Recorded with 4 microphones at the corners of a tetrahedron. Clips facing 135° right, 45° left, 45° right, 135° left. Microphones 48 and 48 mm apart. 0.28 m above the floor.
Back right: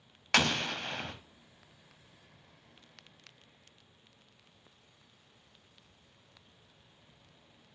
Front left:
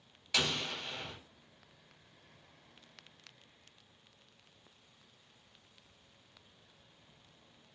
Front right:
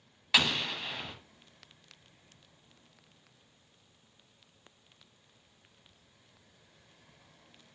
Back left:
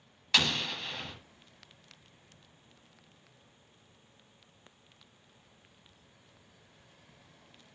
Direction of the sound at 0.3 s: 125° right.